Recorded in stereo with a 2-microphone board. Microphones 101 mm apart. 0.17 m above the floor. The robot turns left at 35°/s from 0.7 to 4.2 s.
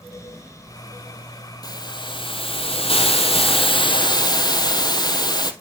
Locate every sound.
1.6 s a hiss: 135° left, 1.9 m; by 5.5 s 45° left, 1.9 m